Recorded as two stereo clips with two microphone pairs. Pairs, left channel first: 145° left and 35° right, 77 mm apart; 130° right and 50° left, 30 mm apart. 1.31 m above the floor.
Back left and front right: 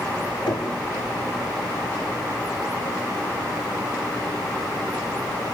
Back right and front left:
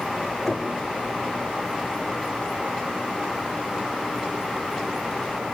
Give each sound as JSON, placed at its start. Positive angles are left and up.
{"t": 0.5, "sound": "knocking", "azimuth_deg": 145, "distance_m": 3.5}